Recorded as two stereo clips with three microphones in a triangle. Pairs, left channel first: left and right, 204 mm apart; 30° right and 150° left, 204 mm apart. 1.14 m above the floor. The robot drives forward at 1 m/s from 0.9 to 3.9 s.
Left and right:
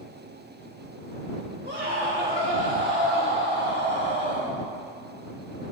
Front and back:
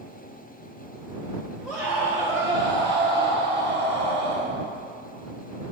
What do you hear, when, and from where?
1.6 s a scream: 120° right, 2 m; by 4.5 s 155° right, 3.5 m